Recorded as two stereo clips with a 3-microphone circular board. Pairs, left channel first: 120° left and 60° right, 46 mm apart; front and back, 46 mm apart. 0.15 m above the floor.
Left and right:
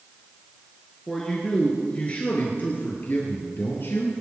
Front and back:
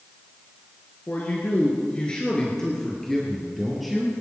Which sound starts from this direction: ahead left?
A man speaking, at 1.1 s.